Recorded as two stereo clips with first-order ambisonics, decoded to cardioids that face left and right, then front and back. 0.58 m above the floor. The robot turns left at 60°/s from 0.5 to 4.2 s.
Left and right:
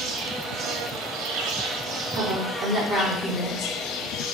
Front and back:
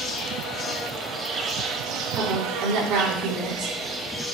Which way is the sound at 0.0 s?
45° right.